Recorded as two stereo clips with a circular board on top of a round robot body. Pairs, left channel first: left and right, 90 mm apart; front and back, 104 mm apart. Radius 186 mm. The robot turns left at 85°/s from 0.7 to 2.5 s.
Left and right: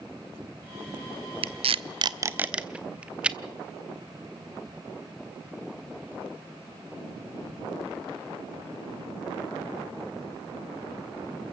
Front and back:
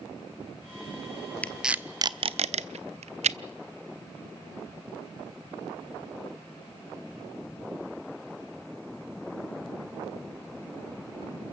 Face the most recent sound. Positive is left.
turn(degrees=-170)